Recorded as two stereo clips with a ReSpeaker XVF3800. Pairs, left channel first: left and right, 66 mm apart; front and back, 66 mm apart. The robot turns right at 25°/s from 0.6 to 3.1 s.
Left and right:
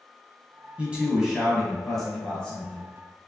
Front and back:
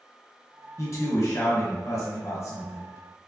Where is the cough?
I don't hear a cough.